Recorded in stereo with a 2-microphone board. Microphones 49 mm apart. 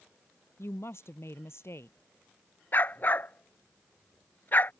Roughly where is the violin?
I don't hear a violin.